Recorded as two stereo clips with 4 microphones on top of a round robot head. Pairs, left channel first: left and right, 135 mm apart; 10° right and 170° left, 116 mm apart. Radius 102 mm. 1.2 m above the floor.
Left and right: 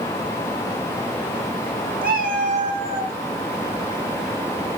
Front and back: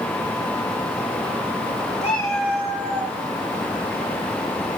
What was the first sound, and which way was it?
A cat meowing, 55° right.